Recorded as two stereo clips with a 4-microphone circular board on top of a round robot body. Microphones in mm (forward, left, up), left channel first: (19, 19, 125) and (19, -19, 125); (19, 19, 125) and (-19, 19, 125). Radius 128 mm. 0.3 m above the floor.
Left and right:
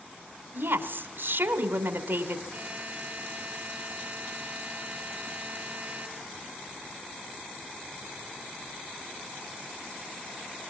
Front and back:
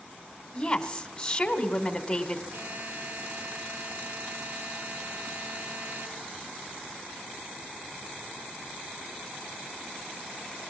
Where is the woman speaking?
75° right, 3 m.